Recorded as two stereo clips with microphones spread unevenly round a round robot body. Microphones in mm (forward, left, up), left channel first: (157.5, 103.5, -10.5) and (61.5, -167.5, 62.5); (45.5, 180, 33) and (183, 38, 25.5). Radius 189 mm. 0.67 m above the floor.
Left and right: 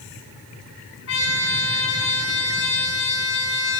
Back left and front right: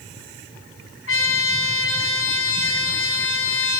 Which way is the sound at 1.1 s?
130° left.